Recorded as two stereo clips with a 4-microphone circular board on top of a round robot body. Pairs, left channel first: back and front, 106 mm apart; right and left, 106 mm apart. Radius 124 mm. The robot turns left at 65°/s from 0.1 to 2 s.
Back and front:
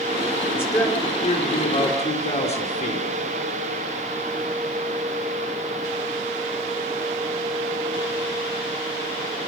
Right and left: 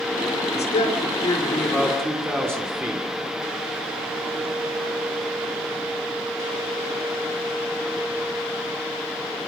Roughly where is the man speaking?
Right.